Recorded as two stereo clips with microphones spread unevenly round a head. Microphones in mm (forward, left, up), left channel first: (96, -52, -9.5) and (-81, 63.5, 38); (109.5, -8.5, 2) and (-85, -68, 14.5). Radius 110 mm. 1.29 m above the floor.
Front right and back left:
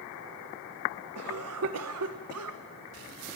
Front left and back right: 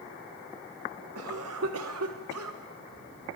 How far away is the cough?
About 1.2 m.